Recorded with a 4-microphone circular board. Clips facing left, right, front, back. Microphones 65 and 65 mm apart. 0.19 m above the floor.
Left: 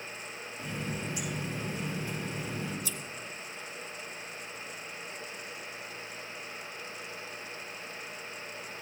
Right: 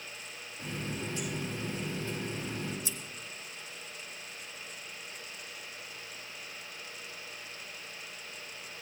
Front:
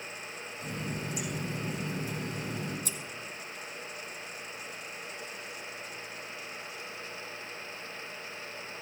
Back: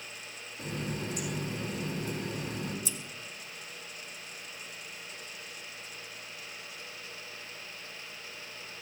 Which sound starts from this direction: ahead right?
Scissors, at 2.9 s.